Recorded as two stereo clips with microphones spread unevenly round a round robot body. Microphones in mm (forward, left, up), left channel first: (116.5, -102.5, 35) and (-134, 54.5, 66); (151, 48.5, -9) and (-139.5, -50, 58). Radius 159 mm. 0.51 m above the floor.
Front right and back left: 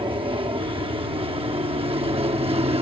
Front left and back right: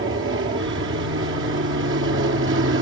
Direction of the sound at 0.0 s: 150° right.